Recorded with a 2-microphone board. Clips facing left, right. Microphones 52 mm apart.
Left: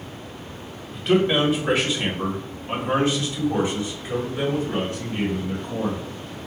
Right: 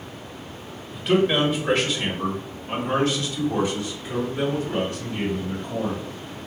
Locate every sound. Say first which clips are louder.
0.9 s a man speaking: left 1 dB; centre (ahead or behind), 1.3 m; by 6.0 s 25° left (ahead or behind), 3 m